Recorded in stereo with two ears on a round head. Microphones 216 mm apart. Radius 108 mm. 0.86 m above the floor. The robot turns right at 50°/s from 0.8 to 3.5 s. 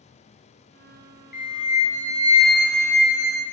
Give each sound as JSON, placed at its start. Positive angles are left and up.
{"t": 1.3, "sound": "a flute", "azimuth_deg": 100, "distance_m": 0.6}